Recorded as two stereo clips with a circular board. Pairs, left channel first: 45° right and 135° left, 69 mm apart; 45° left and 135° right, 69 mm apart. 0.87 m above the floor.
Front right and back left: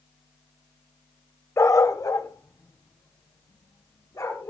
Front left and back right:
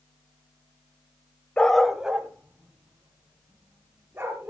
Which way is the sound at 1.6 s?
25° right.